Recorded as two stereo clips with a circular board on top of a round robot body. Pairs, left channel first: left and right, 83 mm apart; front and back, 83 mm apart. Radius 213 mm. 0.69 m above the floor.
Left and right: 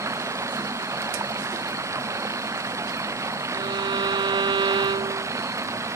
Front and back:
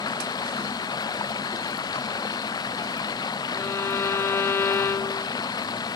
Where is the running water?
35° right.